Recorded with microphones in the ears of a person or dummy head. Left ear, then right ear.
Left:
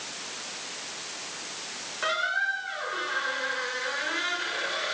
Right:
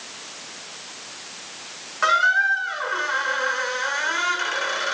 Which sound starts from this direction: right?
A squeak, at 2.0 s.